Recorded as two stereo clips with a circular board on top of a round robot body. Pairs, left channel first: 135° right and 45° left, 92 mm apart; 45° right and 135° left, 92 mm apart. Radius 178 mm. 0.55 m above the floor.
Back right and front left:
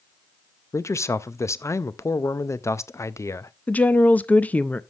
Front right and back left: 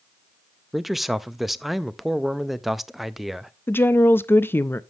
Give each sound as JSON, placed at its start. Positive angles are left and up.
{"t": 0.7, "sound": "a man speaking", "azimuth_deg": -140, "distance_m": 0.6}
{"t": 3.7, "sound": "a woman speaking", "azimuth_deg": -80, "distance_m": 0.7}